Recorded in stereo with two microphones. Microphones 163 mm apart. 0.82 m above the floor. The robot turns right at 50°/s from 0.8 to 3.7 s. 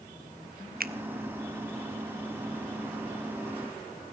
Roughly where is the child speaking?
I don't hear a child speaking.